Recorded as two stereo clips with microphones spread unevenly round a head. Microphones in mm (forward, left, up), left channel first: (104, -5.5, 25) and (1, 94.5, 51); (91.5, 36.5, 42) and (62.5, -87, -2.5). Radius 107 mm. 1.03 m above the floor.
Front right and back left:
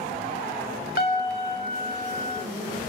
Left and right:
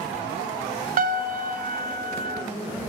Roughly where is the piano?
Right.